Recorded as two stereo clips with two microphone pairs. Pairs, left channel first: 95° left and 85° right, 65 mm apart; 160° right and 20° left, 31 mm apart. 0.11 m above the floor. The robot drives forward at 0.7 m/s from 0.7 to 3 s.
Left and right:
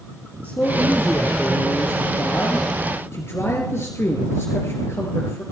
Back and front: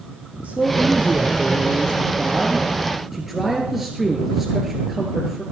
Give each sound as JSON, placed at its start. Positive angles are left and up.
{"t": 0.4, "sound": "a man speaking", "azimuth_deg": 45, "distance_m": 2.5}